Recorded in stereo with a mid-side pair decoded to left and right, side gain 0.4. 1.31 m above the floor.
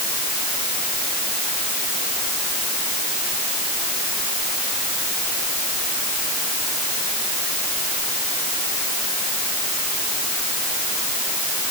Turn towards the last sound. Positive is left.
No sound to turn to.